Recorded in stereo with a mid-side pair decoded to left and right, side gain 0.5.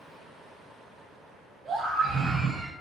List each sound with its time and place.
1.6 s a scream: 50° right, 4.5 m; by 2.7 s 55° right, 4 m